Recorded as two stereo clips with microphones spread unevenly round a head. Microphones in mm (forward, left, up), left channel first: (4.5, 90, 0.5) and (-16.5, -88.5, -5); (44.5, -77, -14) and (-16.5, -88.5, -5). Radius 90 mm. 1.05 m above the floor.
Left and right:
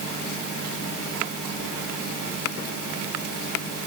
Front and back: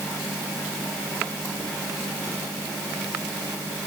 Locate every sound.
Only background noise.